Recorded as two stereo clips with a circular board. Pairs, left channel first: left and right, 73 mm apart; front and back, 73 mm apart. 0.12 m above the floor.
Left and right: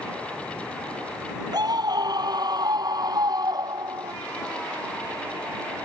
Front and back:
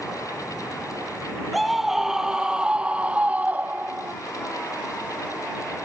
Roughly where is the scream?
Right.